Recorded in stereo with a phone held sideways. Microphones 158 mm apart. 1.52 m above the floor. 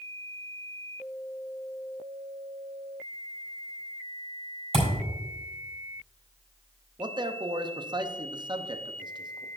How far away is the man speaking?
About 0.8 m.